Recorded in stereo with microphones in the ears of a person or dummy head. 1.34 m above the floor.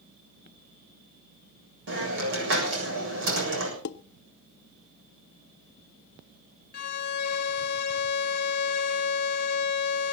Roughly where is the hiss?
Right.